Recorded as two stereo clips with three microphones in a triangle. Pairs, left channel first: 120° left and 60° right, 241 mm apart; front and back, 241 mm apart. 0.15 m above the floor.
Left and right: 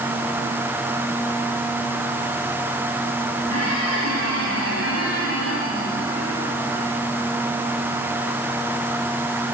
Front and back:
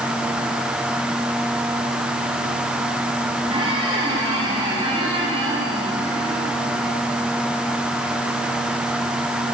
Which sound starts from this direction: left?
A squeak, at 3.5 s.